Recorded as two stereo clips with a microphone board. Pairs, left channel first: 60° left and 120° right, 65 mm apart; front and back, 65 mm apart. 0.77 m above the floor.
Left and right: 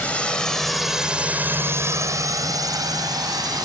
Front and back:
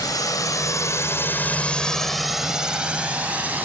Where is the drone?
10° right; by 3.6 s 115° right.